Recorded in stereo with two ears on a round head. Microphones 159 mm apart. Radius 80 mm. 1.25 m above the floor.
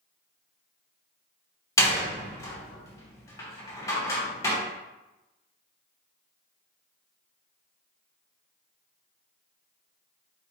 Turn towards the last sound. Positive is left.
turn(degrees=20)  # may be behind; listen again after turning